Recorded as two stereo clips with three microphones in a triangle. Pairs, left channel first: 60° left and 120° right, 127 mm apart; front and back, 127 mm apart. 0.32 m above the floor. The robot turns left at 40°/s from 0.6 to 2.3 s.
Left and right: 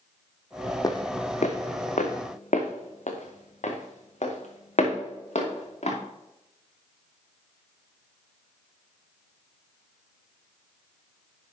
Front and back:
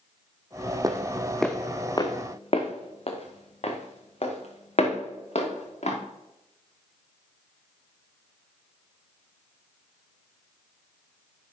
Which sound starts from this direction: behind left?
Footsteps, at 0.8 s.